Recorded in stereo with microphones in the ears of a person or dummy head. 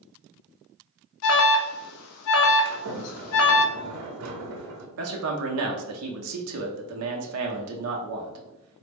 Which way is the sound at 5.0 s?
75° right (ahead or behind).